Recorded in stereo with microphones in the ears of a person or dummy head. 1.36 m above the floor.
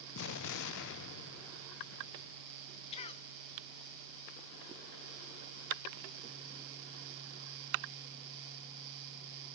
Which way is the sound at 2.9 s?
35° left (ahead or behind).